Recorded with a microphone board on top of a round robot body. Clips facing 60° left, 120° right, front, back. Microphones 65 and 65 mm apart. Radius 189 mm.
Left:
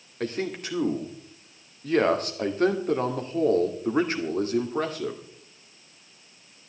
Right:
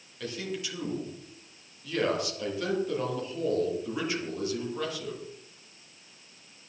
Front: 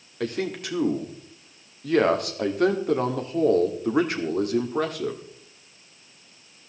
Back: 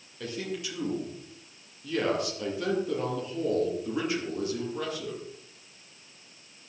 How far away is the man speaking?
About 2 m.